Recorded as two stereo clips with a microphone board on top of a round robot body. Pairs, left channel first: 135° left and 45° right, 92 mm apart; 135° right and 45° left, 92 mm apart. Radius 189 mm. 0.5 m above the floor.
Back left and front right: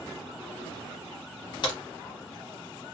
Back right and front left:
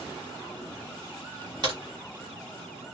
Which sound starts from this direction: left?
A crack, at 1.6 s.